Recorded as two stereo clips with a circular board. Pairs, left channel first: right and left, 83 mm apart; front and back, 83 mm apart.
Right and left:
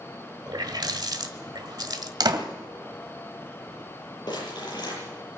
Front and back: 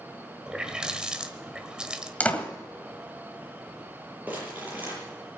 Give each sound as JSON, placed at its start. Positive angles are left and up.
{"t": 0.5, "sound": "a running tap", "azimuth_deg": 100, "distance_m": 1.4}
{"t": 2.2, "sound": "a door slam", "azimuth_deg": 70, "distance_m": 1.8}
{"t": 4.3, "sound": "crumpling", "azimuth_deg": -115, "distance_m": 8.0}